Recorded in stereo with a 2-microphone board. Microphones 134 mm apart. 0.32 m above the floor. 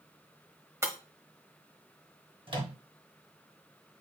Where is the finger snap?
No finger snap in this recording.